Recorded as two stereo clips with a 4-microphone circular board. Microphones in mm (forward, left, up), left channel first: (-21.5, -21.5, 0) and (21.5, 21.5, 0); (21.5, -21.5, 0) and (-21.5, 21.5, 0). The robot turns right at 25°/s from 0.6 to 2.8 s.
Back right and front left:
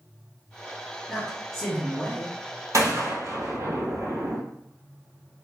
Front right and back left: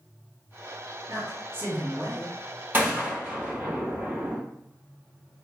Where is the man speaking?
150° left, 1.7 m; by 2.4 s straight behind, 1.7 m.